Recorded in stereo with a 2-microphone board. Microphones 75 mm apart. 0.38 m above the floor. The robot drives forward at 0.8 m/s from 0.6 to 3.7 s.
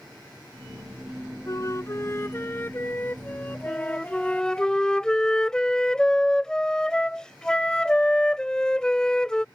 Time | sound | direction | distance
1.5 | a flute | 45° left (ahead or behind) | ?
3.7 | a flute | 10° left (ahead or behind) | ?